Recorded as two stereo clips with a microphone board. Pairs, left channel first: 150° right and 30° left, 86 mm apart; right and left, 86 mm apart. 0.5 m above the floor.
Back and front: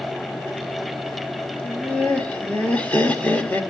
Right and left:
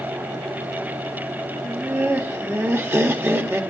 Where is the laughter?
145° left, 1.6 m.